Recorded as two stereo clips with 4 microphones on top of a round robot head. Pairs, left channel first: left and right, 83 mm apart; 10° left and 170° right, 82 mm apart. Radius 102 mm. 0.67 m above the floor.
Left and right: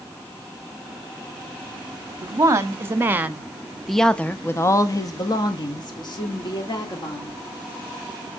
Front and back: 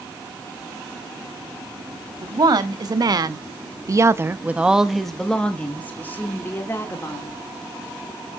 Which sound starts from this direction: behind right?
A woman speaking, at 2.2 s.